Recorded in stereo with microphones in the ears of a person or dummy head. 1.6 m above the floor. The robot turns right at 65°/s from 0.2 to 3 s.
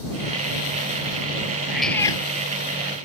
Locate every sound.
1.7 s a cat meowing: 10° right; by 2.2 s 25° left